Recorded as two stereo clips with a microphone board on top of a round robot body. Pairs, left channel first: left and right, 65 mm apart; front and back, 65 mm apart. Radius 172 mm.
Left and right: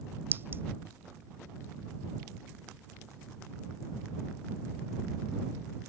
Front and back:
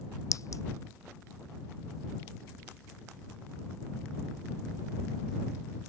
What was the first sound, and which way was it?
A clink, 35° right.